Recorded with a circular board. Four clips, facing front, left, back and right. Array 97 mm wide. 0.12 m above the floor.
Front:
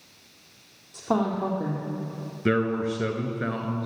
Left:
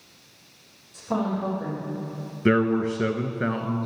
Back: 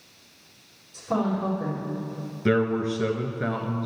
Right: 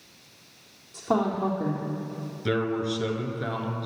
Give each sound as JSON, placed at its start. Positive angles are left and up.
{"t": 0.9, "sound": "a woman speaking", "azimuth_deg": -35, "distance_m": 4.0}
{"t": 2.5, "sound": "a man speaking", "azimuth_deg": 80, "distance_m": 1.2}